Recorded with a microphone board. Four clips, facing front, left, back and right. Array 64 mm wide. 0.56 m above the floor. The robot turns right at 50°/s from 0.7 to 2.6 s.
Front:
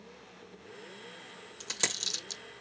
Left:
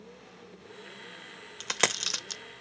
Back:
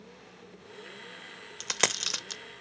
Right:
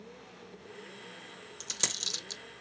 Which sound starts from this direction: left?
A dropped coin, at 1.6 s.